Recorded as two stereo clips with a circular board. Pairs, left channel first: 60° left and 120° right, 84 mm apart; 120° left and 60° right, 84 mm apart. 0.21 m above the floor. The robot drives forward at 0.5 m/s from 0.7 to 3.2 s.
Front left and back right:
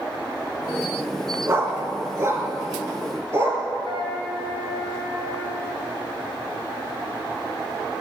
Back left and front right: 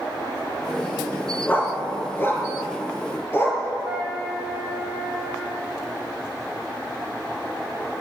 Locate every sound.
1.5 s a dog barking: 175° right, 0.9 m; by 3.6 s straight behind, 1.8 m
3.8 s a flute: 140° right, 3.5 m